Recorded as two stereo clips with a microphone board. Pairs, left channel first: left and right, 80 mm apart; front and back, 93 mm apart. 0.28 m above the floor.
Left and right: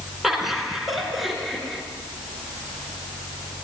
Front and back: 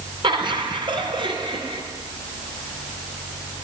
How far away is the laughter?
About 3 m.